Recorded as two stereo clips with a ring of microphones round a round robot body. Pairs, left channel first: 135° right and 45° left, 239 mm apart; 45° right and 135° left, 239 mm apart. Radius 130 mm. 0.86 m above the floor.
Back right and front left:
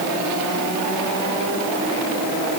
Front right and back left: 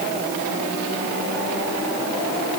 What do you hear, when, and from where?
Only background noise.